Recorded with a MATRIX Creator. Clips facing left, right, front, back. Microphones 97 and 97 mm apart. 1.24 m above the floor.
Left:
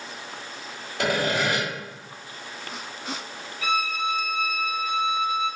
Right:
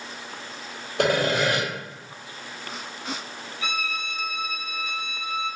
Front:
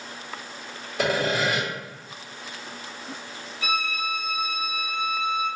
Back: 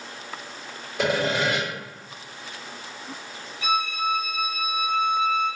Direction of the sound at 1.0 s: 90° right.